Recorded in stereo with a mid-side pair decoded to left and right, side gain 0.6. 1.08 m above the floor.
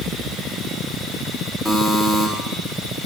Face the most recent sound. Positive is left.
turn(degrees=10)